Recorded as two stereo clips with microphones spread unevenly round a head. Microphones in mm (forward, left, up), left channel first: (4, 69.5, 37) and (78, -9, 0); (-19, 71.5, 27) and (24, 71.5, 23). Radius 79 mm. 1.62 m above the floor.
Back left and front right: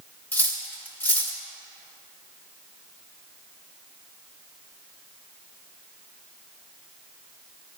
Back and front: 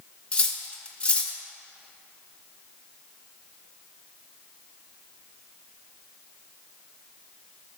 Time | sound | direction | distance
0.3 | cutlery clinking | 155° left | 0.9 m